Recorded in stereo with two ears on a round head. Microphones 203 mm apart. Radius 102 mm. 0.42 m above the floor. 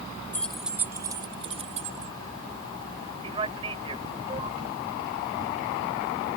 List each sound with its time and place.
0.3 s keys jangling: 10° left (ahead or behind); by 2.1 s 35° right (ahead or behind)
3.2 s a man speaking: 25° right (ahead or behind)